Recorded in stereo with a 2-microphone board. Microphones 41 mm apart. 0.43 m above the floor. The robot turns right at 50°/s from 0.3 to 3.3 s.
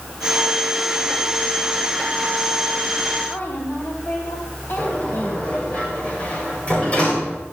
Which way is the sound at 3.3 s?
65° left (ahead or behind).